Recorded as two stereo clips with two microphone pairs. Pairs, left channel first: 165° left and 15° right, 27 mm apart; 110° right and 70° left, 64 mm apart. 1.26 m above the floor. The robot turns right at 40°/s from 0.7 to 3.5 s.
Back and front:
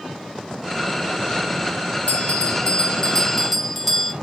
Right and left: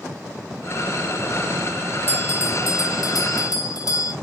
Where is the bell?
165° right, 1.1 m; by 4.1 s 105° right, 1.1 m.